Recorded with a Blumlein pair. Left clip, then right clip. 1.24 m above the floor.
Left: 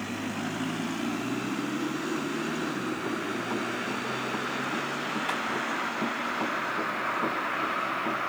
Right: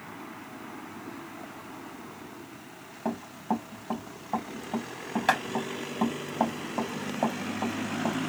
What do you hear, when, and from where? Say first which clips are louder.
3.0 s running footsteps: left 2 dB; 50° right, 4.5 m